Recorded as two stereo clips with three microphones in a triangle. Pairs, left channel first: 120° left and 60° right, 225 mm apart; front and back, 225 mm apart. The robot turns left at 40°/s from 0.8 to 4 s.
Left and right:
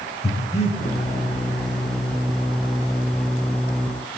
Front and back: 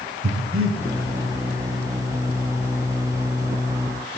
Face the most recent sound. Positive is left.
turn(degrees=50)